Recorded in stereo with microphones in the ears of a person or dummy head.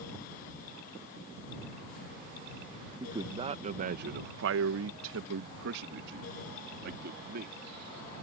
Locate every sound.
3.0 s a man speaking: 15° right (ahead or behind); by 7.6 s 55° right (ahead or behind)